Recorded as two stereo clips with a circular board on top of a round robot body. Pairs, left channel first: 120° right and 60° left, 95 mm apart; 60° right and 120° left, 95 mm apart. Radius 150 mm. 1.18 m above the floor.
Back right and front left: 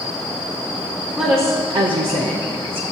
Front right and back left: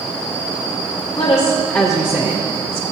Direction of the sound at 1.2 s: 15° right.